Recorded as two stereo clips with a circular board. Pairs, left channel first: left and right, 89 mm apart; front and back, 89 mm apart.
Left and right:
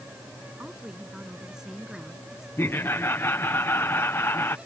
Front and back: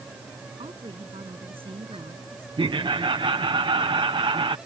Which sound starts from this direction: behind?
A woman speaking, at 0.6 s.